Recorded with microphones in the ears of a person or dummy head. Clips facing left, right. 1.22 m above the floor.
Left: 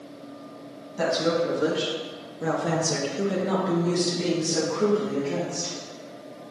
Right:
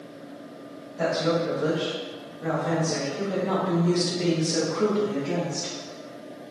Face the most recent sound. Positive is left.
turn(degrees=-25)  # may be behind; listen again after turning